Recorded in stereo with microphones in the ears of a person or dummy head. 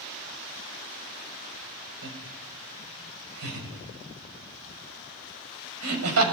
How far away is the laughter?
About 5.5 m.